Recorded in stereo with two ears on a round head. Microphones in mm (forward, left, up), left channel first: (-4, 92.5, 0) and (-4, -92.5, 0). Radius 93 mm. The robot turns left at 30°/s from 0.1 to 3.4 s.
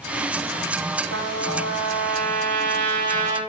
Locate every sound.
1.1 s a trumpet: 75° right, 4 m; by 3.4 s 140° right, 4 m